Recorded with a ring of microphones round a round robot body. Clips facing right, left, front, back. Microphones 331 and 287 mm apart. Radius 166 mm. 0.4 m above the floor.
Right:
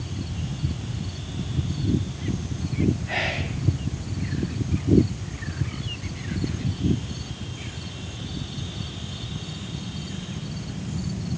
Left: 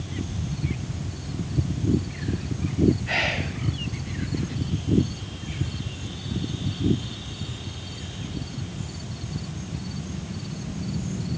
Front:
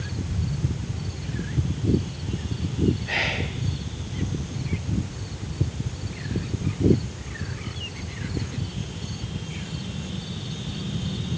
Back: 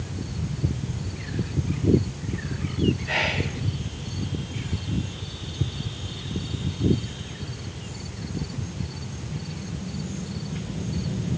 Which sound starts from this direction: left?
Whispering, at 3.0 s.